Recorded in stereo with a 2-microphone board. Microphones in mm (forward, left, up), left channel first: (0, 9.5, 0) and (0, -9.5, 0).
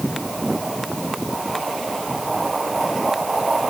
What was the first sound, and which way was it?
Only background noise.